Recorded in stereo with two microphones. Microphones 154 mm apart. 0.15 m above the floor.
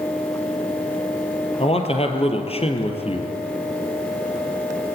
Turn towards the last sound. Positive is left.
turn(degrees=40)  # may be behind; listen again after turning